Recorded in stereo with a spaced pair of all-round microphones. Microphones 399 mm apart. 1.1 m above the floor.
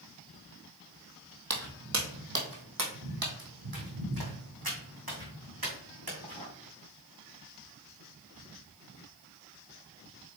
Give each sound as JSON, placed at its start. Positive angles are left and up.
{"t": 1.5, "sound": "footsteps", "side_deg": -40, "distance_m": 1.6}